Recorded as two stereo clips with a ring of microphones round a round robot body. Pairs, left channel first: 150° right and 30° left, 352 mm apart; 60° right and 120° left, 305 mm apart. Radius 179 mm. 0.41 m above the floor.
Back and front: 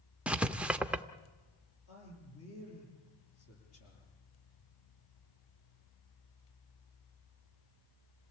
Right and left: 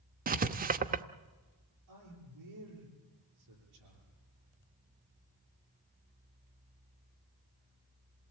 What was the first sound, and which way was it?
Writing, 110° left.